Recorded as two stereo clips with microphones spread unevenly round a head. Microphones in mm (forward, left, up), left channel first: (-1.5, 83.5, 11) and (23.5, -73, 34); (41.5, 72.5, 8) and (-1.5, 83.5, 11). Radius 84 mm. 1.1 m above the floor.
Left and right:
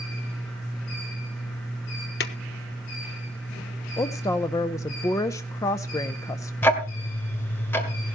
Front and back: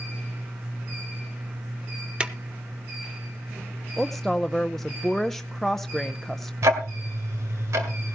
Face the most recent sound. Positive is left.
turn(degrees=180)